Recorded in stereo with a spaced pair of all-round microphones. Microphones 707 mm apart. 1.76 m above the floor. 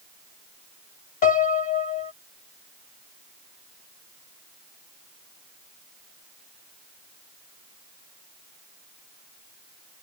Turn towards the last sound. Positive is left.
turn(degrees=60)  # may be behind; listen again after turning